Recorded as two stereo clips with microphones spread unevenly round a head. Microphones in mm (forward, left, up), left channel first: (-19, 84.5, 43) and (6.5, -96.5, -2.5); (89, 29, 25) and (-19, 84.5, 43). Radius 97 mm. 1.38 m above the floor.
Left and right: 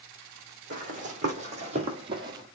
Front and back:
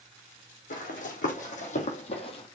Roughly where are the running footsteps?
Ahead right.